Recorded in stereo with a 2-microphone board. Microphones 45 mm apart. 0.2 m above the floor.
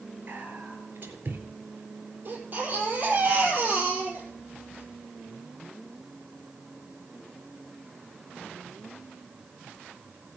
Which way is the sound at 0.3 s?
45° right (ahead or behind).